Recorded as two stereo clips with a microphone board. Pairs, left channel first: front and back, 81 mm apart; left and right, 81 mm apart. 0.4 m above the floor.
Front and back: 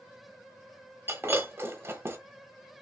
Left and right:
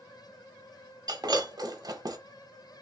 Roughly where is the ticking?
I don't hear ticking.